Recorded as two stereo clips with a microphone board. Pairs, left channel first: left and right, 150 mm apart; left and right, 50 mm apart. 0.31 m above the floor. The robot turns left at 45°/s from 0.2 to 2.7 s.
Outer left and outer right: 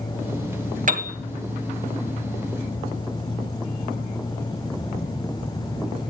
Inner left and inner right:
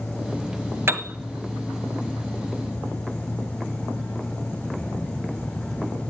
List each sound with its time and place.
0.9 s a piano: 55° right (ahead or behind), 1.6 m